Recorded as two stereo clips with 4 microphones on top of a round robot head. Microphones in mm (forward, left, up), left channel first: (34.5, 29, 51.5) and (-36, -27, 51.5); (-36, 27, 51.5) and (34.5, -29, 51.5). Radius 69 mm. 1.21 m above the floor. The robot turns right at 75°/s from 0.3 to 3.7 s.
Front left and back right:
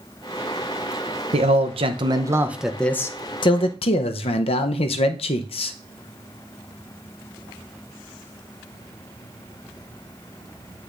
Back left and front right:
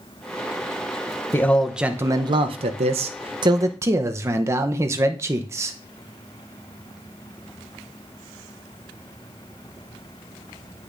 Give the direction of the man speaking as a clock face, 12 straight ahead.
5 o'clock.